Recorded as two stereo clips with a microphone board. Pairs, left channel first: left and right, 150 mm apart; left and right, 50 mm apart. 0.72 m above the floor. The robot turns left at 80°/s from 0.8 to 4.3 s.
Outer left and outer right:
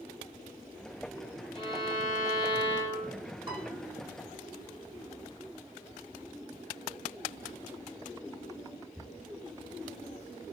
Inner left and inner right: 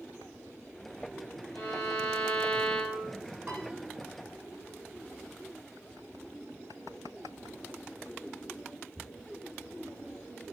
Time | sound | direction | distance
1.5 | a violin | 140° left | 1.5 m
3.5 | a piano | 30° right (ahead or behind) | 0.6 m